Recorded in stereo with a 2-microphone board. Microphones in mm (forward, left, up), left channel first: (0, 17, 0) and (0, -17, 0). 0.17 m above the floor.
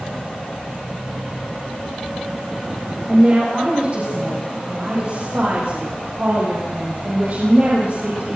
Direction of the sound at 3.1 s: 35° right (ahead or behind).